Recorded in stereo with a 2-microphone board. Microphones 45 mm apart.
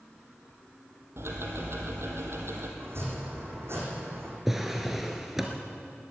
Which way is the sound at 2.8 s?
65° right (ahead or behind).